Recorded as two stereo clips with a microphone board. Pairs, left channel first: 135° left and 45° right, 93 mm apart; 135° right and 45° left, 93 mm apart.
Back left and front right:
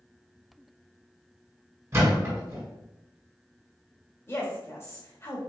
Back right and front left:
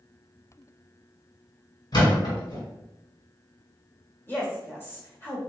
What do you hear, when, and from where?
1.9 s a thud: 105° right, 2.0 m
4.3 s a woman speaking: 175° left, 1.0 m